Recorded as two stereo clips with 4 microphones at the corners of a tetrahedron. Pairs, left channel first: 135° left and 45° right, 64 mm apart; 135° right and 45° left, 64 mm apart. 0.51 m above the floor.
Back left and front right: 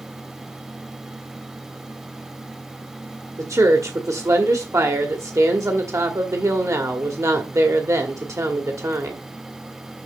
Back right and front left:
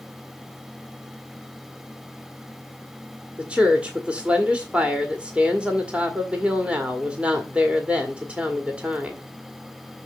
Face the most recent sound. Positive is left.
turn(degrees=-25)